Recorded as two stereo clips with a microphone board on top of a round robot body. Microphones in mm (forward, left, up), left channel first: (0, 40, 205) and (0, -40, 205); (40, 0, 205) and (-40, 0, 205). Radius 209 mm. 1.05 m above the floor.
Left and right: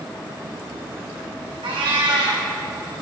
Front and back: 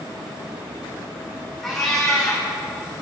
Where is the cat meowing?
85° right, 2 m.